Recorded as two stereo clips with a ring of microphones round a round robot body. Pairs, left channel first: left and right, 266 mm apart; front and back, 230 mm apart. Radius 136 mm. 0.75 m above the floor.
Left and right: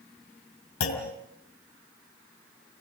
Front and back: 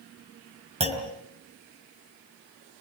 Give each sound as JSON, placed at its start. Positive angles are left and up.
{"t": 0.8, "sound": "a clunk", "azimuth_deg": 120, "distance_m": 5.0}